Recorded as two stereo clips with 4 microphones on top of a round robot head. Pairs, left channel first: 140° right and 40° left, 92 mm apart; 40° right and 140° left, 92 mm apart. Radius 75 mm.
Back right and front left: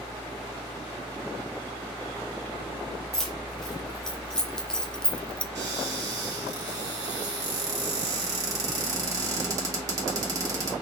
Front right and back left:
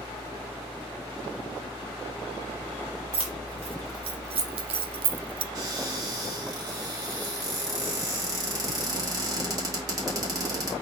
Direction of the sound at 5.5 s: 90° left.